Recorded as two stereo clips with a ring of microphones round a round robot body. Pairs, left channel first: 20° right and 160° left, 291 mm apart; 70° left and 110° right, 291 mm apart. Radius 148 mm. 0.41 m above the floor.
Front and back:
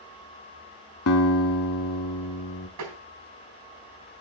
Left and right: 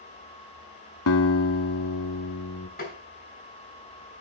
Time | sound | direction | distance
1.1 | a guitar | 25° left | 0.9 m
2.8 | tapping | 130° left | 4 m